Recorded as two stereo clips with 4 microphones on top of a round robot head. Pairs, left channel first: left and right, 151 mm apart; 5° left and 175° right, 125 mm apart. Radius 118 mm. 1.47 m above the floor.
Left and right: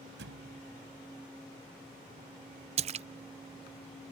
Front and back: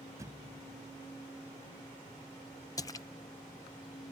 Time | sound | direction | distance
0.2 | a thud | 100° right | ?
2.8 | a splash | 65° right | ?